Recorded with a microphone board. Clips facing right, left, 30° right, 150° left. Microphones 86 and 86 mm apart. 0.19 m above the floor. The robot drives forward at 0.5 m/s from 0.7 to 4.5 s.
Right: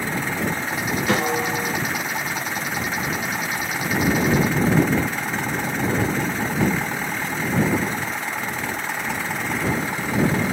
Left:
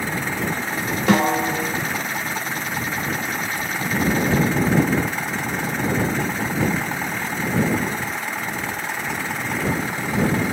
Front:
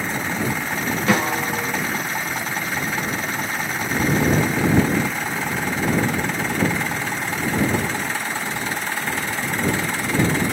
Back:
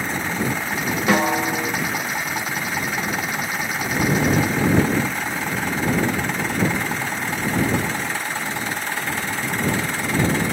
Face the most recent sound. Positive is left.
turn(degrees=90)